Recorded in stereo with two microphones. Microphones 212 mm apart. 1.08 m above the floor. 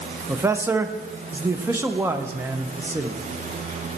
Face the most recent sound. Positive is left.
turn(degrees=-10)  # may be behind; listen again after turning